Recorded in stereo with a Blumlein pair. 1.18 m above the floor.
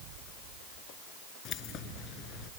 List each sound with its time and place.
1.4 s keys jangling: 35° left